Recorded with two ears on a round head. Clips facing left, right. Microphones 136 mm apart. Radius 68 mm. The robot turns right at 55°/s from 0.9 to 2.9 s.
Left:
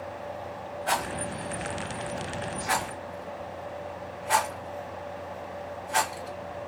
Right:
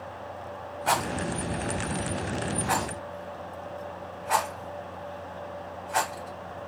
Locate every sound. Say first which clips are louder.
0.9 s a rattle: right 3 dB; 75° right (ahead or behind), 1.8 m; by 6.7 s 35° left (ahead or behind), 1.8 m